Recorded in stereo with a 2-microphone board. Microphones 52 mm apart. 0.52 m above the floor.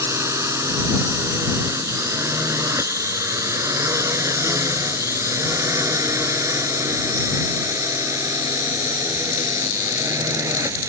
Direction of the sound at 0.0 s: 65° right (ahead or behind).